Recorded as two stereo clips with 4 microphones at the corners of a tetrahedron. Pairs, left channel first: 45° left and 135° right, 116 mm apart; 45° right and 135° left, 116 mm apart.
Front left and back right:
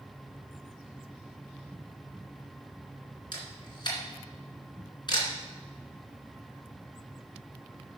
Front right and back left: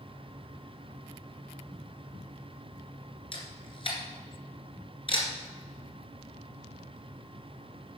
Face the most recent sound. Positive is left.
turn(degrees=-5)